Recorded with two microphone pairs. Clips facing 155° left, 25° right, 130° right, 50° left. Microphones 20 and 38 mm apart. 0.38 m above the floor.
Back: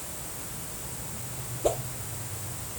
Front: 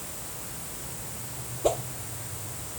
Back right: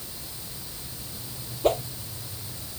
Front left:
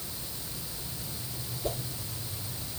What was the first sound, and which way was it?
A whoosh, 105° right.